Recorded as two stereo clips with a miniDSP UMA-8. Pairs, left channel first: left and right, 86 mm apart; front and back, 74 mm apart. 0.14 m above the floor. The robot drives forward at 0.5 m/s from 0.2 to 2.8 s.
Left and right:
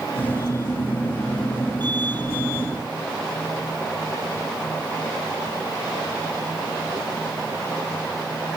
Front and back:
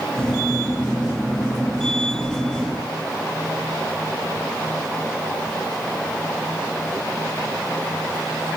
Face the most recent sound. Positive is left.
No sound to turn to.